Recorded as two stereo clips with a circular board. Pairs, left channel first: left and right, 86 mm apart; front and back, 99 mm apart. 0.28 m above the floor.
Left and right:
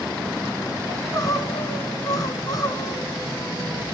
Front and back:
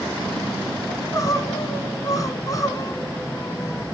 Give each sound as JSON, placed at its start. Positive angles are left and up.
{"t": 0.9, "sound": "crying", "azimuth_deg": 50, "distance_m": 2.0}